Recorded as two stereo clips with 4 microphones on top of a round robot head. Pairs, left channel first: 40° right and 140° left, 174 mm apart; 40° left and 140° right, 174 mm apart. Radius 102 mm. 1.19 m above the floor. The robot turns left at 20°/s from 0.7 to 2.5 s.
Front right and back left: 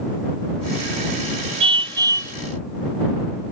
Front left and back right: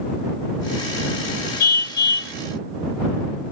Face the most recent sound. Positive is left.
turn(degrees=60)